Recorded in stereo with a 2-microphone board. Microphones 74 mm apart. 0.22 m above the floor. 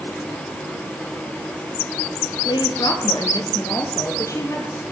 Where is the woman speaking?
75° left (ahead or behind), 3.5 m; by 4.8 s 35° left (ahead or behind), 5 m.